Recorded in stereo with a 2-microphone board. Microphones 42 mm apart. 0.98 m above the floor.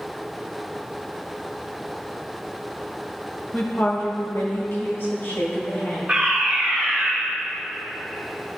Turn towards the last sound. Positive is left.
turn(degrees=-25)  # may be behind; listen again after turning